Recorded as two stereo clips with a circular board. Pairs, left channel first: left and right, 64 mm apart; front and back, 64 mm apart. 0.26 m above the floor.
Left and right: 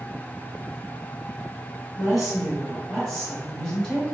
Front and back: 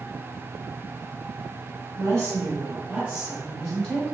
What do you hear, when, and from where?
2.0 s a woman speaking: 170° right, 1.4 m; by 4.1 s 35° left, 1.1 m